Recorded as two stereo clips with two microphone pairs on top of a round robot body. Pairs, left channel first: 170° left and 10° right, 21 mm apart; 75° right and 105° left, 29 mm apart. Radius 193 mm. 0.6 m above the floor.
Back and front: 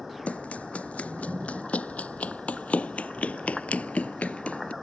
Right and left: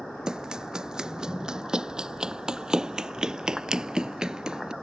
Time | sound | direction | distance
0.3 | running footsteps | 170° left | ?